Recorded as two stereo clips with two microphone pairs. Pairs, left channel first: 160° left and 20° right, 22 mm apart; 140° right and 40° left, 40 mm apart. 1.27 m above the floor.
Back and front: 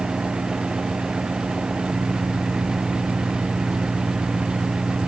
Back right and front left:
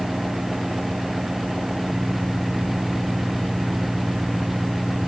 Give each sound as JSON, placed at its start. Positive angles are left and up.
{"t": 0.0, "sound": "an engine running", "azimuth_deg": -25}